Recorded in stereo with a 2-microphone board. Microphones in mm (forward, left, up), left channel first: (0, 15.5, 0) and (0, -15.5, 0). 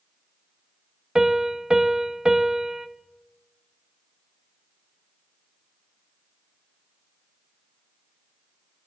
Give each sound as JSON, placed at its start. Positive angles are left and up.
{"t": 1.1, "sound": "a piano", "side_deg": -20, "distance_m": 0.9}